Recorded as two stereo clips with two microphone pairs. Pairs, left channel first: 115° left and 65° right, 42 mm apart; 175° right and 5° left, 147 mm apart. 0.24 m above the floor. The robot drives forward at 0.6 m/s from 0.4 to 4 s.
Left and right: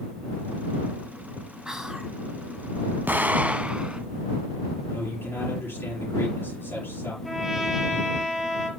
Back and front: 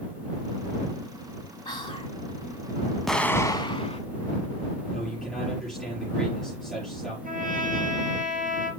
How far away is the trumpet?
About 5 m.